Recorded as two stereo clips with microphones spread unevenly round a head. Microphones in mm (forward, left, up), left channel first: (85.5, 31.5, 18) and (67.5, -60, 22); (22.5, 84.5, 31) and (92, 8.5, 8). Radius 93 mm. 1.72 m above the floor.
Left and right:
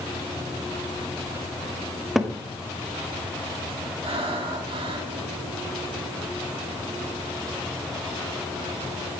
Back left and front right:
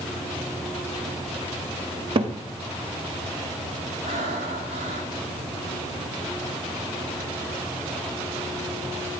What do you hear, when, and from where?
2.1 s a cupboard door: 20° right, 1.2 m
4.0 s breathing: 85° right, 3 m